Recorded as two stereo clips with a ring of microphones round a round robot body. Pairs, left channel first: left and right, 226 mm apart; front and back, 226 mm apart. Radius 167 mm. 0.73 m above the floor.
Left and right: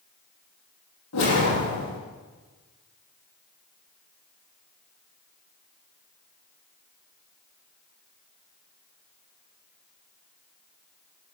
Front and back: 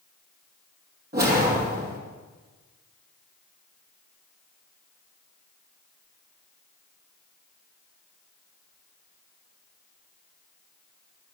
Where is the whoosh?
130° left, 9 m.